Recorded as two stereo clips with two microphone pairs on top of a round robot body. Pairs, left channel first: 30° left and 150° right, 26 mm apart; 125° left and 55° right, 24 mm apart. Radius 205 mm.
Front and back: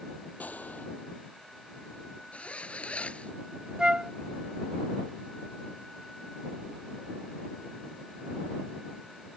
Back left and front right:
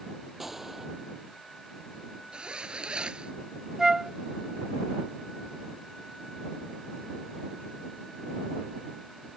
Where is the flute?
100° right.